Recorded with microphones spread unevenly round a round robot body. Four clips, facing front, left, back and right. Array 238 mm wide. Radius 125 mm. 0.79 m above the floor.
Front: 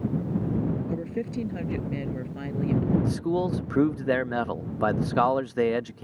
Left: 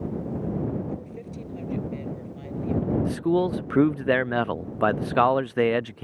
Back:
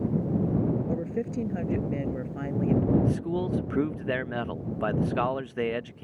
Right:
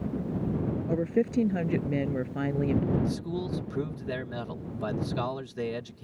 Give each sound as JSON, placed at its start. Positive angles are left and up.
{"t": 0.9, "sound": "a woman speaking", "azimuth_deg": -80}
{"t": 3.0, "sound": "a man speaking", "azimuth_deg": 45}